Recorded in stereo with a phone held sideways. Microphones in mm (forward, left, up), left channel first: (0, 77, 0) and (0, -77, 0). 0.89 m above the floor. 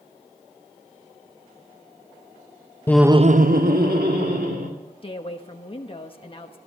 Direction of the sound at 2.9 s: 15° left (ahead or behind).